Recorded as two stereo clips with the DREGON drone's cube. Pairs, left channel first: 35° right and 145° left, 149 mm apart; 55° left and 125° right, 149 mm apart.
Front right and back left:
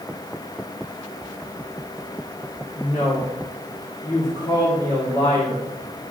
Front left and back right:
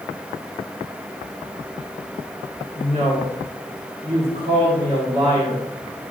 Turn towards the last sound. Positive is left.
turn(degrees=-80)